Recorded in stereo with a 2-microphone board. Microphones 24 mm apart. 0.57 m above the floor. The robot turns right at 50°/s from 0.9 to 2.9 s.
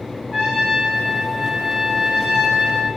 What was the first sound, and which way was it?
A trumpet, 150° left.